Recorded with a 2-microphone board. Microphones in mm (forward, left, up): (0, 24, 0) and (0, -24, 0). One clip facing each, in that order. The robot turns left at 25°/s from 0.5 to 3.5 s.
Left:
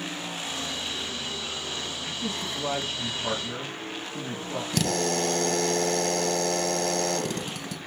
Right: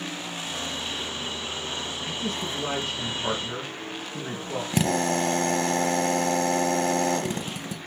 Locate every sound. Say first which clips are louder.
2.1 s a man speaking: right 2 dB; 90° right, 2.5 m; by 4.6 s 125° right, 2.5 m
4.7 s a drill: right 3 dB; 25° right (ahead or behind), 0.8 m